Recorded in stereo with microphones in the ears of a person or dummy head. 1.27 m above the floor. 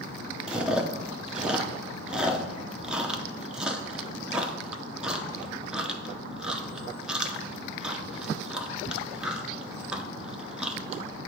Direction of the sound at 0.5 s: 5° right (ahead or behind).